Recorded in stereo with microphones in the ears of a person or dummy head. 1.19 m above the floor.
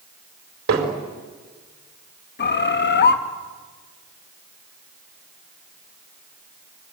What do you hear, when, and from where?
0.7 s hammering: 60° right (ahead or behind), 4.5 m
2.4 s a bird: 50° left (ahead or behind), 1.5 m